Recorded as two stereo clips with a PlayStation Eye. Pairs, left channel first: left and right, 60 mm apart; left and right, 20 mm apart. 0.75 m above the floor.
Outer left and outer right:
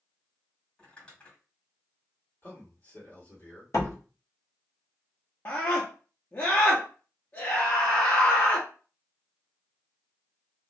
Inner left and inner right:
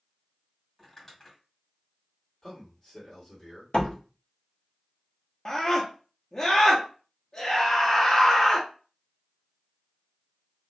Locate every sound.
0.8 s crumpling: 20° left (ahead or behind), 1.8 m
2.4 s a man speaking: 40° left (ahead or behind), 1.9 m
3.7 s a door slam: 65° left (ahead or behind), 1.5 m
5.5 s a scream: 40° left (ahead or behind), 0.8 m